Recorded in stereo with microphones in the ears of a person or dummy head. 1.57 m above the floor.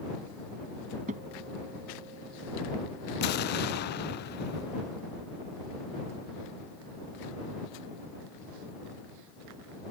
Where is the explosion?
55° left (ahead or behind).